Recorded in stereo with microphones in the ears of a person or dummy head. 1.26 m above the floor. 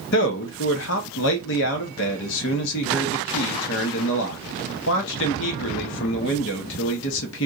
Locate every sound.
0.1 s a man speaking: 65° left (ahead or behind), 0.7 m